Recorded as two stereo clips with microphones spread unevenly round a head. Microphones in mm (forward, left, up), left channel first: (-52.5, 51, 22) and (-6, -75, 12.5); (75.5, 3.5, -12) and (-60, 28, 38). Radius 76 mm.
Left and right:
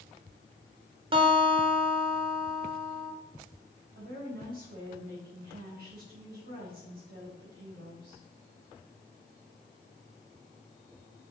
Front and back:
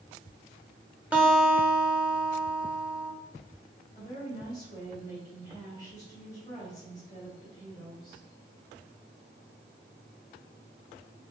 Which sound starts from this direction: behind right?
A guitar, at 1.1 s.